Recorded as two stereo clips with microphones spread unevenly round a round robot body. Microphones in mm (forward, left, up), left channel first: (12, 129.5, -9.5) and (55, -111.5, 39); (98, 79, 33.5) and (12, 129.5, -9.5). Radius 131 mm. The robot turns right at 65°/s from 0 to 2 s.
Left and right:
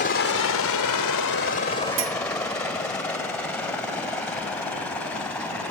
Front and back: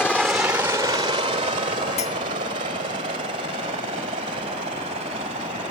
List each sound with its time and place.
0.0 s a helicopter: 50° left; by 5.7 s 175° right
2.0 s a clink: 45° right; by 2.2 s 40° right